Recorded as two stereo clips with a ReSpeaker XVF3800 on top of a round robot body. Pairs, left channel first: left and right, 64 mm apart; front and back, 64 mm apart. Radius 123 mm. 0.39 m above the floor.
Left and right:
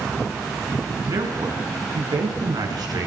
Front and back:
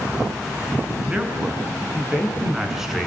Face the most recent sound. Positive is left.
turn(degrees=-95)